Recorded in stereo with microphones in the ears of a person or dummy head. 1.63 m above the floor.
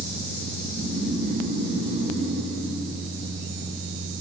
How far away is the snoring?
About 7.5 m.